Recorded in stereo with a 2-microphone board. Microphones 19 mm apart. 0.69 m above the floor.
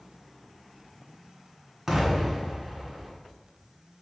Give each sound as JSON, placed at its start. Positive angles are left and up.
{"t": 1.9, "sound": "an explosion", "side_deg": -25, "distance_m": 1.1}